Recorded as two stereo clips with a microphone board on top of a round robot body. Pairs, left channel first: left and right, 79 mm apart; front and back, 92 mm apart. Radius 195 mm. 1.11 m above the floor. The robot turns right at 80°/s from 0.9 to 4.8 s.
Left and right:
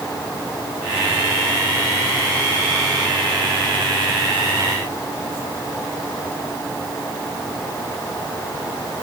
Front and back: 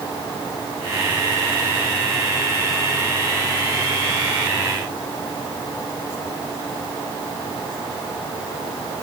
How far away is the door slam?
No door slam in this recording.